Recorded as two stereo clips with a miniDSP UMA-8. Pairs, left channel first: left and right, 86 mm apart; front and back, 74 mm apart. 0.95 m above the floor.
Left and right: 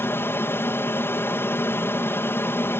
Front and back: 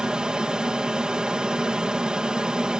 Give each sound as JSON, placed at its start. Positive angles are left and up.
{"t": 0.0, "sound": "an aircraft", "azimuth_deg": 115}